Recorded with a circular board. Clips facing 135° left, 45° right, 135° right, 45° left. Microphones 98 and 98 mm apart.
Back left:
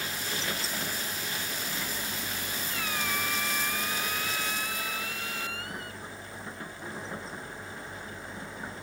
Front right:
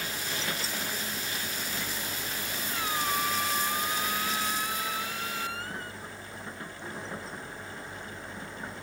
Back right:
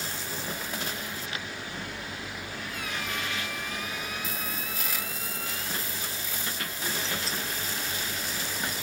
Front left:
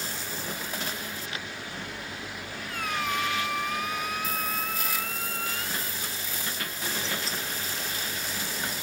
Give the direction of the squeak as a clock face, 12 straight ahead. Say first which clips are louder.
Front right 4 dB, front left 7 dB; 12 o'clock.